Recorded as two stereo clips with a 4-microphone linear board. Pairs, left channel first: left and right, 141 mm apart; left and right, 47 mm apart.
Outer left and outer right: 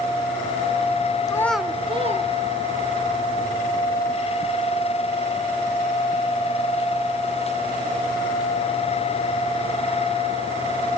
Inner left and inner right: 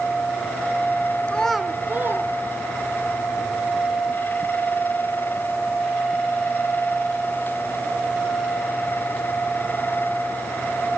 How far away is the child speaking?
About 0.7 m.